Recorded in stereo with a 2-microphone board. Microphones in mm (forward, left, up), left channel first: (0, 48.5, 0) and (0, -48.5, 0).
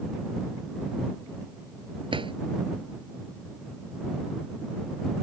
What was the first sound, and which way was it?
A drawer, 60° right (ahead or behind).